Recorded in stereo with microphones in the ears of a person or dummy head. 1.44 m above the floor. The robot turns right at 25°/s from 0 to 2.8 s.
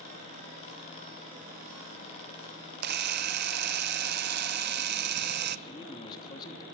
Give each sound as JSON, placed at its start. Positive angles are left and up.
{"t": 2.8, "sound": "a camera shutter", "side_deg": -55, "distance_m": 0.7}
{"t": 5.7, "sound": "a man speaking", "side_deg": 20, "distance_m": 3.0}